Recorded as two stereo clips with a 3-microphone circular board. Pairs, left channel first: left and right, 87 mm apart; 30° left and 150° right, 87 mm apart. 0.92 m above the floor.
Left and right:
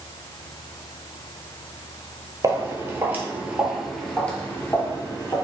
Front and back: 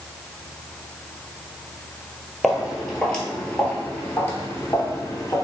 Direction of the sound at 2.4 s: 65° right.